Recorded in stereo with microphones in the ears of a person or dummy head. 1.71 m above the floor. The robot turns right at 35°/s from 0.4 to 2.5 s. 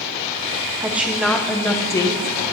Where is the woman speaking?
10° right, 0.8 m; by 2.4 s 45° left, 0.8 m.